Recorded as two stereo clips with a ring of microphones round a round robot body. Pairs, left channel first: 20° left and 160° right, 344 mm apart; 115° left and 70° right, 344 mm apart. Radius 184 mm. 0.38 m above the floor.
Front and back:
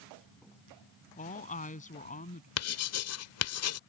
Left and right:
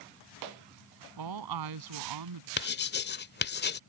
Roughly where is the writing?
Ahead left.